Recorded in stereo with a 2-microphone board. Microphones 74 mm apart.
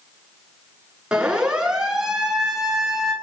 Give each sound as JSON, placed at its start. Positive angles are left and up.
{"t": 1.1, "sound": "a siren", "side_deg": -10, "distance_m": 10.0}